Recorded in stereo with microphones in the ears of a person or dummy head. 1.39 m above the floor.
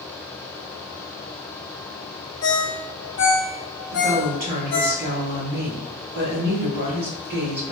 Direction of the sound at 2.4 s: 70° left (ahead or behind).